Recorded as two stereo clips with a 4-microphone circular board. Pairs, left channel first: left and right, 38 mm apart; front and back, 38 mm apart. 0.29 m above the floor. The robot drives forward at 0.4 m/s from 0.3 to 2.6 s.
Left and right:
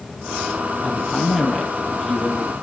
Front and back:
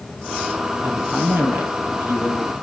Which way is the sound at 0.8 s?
175° right.